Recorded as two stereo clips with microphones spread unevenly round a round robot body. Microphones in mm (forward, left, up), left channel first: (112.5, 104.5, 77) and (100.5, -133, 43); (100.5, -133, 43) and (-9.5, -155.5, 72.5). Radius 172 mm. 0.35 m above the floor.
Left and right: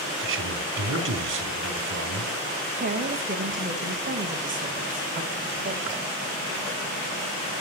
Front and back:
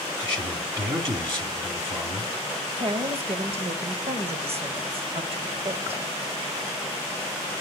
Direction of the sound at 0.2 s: 120° right.